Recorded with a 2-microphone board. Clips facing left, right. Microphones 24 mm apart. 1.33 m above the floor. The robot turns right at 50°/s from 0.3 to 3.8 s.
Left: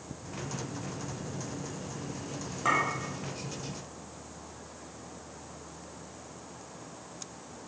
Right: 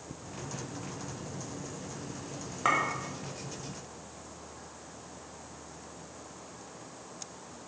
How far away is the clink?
About 2 m.